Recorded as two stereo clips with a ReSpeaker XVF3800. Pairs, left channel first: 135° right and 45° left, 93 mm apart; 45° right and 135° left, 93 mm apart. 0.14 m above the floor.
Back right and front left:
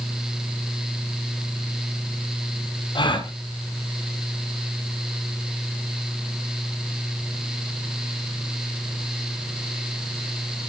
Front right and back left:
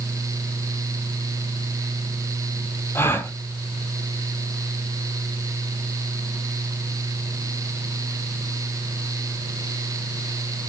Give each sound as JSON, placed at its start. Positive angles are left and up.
{"t": 3.0, "sound": "a gasp", "azimuth_deg": -110, "distance_m": 2.5}